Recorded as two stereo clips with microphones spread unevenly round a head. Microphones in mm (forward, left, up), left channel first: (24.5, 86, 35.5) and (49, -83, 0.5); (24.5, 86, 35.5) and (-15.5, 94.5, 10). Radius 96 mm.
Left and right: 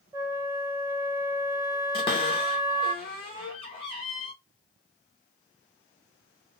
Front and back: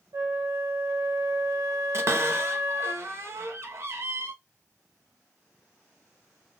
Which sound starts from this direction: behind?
A flute, at 0.1 s.